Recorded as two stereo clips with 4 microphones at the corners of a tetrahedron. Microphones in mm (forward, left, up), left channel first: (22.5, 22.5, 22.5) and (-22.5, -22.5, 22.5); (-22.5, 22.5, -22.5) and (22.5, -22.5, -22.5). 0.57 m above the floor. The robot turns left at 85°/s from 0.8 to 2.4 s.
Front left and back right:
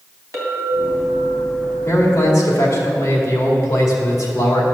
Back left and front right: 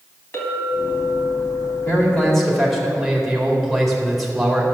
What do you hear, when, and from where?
0.3 s a clink: 175° right, 2.5 m; by 2.9 s 50° left, 2.5 m
1.9 s a man speaking: 90° left, 2 m; by 4.6 s 40° left, 2 m